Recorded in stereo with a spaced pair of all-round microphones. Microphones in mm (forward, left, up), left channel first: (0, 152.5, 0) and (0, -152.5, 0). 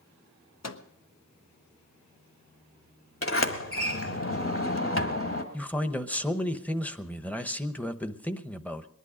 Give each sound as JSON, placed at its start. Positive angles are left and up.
{"t": 0.6, "sound": "a microwave", "side_deg": 60, "distance_m": 0.8}
{"t": 3.2, "sound": "a sliding door", "side_deg": 45, "distance_m": 1.3}
{"t": 5.5, "sound": "a man speaking", "side_deg": 5, "distance_m": 0.9}